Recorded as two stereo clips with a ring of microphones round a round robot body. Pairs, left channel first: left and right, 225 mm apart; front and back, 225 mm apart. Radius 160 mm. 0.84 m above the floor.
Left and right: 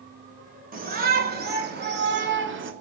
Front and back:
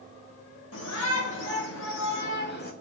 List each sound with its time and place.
0.7 s a shout: 40° right, 3.5 m; by 2.7 s 60° right, 2 m